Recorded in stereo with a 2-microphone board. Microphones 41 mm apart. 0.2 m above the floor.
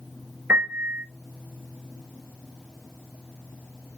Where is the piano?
70° right (ahead or behind), 2.0 m.